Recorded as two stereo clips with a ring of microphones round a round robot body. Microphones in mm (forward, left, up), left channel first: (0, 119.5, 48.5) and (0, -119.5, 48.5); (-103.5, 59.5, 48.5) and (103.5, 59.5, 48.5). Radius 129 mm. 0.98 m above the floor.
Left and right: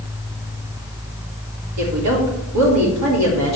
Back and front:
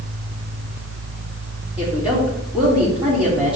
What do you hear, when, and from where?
1.8 s a woman speaking: 85° right, 3.5 m